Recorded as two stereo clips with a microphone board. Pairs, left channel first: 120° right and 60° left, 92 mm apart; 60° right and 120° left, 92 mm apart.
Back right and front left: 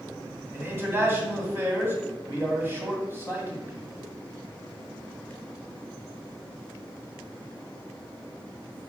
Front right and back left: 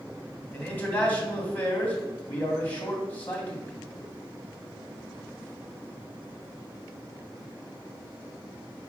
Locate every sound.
0.5 s a man speaking: 5° left, 2 m